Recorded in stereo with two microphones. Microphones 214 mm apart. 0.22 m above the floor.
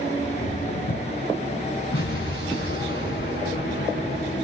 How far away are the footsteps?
About 3 m.